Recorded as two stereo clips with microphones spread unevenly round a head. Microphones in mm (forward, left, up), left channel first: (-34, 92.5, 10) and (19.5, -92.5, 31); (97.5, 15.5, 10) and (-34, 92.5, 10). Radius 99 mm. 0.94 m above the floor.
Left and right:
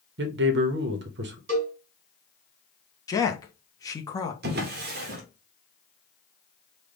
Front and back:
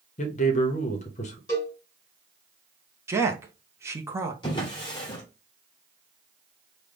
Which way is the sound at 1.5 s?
100° right.